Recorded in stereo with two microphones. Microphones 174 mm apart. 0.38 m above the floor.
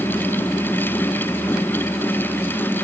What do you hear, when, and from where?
Only background noise.